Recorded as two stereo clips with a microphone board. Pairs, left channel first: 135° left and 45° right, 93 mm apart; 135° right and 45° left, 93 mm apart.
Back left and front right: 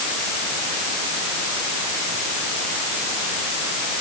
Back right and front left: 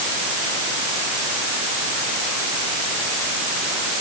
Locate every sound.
Only background noise.